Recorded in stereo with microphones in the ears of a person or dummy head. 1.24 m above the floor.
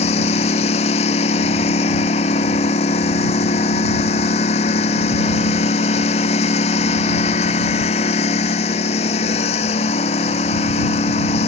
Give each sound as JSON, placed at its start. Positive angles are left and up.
{"t": 0.0, "sound": "a lawn mower", "side_deg": 35}